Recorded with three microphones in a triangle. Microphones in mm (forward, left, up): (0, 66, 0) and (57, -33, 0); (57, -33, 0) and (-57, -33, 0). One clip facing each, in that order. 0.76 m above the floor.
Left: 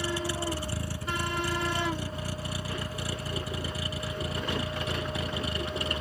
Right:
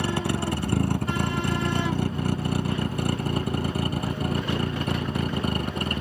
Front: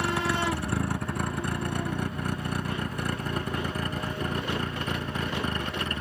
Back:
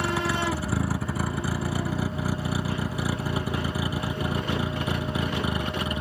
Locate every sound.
0.0 s a vehicle: 90° right; by 6.0 s 100° right